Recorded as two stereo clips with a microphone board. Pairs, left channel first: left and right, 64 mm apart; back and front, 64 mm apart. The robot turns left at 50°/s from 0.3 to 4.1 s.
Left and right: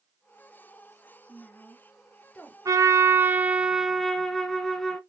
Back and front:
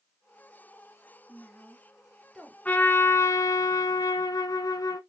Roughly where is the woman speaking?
Behind left.